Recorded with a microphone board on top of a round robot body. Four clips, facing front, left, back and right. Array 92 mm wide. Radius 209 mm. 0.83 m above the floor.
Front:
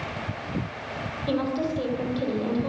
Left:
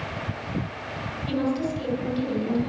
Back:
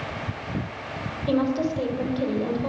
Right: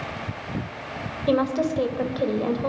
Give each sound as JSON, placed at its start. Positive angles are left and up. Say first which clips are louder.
{"t": 1.3, "sound": "a woman speaking", "louder": "right 4 dB, back 3 dB", "azimuth_deg": -100, "distance_m": 4.0}